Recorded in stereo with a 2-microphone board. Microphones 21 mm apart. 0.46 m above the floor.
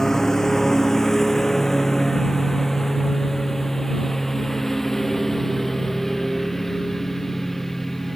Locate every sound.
0.0 s a lawn mower: 20° left (ahead or behind); by 8.2 s 10° left (ahead or behind)